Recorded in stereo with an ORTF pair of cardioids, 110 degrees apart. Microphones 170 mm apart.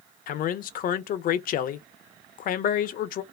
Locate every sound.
0.3 s a man speaking: 55° left, 0.5 m